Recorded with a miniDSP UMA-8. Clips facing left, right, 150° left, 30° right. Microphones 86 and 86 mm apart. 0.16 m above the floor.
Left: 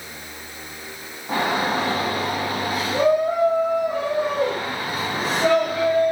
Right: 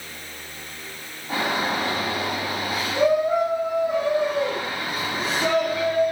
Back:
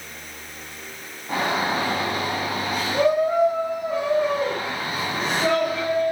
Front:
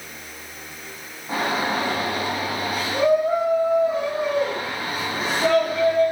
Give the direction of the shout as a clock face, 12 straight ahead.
10 o'clock.